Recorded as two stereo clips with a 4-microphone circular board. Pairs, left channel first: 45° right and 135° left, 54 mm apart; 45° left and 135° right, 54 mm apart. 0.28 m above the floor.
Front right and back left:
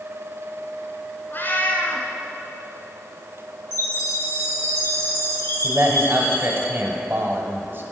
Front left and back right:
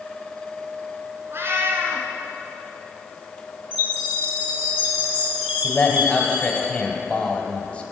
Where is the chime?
75° right, 3 m.